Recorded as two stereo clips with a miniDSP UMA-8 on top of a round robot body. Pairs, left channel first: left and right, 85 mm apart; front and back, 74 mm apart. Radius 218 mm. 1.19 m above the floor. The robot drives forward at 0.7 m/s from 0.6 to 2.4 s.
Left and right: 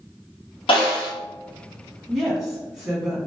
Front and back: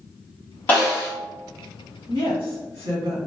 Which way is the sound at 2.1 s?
Straight behind.